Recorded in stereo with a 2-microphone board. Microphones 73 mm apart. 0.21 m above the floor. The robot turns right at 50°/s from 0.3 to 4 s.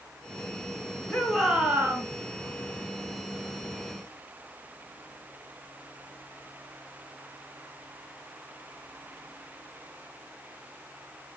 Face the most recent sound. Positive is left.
turn(degrees=-40)